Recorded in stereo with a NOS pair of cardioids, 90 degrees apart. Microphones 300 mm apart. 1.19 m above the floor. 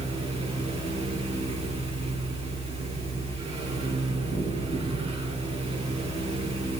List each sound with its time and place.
0.0 s a fan: 20° right, 6.5 m